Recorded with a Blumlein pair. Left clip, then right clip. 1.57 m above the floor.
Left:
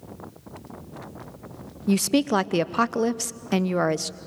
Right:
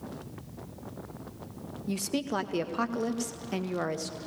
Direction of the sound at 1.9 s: 65° left.